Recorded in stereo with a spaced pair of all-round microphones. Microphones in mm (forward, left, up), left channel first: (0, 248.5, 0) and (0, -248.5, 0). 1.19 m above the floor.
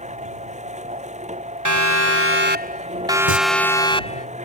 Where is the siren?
35° right (ahead or behind); by 4.3 s 15° left (ahead or behind).